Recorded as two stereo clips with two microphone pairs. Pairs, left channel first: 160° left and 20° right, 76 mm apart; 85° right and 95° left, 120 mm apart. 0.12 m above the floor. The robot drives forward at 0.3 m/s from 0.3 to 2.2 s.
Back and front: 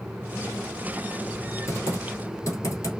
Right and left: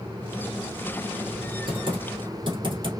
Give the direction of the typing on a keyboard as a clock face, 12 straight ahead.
8 o'clock.